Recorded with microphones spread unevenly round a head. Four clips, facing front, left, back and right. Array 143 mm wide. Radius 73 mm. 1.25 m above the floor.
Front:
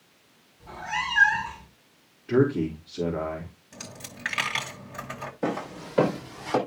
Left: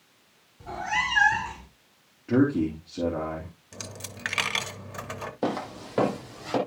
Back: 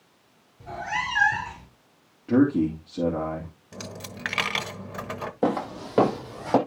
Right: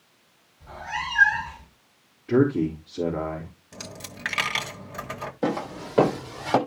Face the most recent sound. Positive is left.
turn(degrees=-140)